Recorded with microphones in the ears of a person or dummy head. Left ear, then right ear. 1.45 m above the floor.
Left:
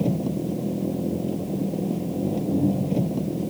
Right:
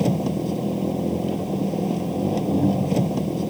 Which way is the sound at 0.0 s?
50° right (ahead or behind).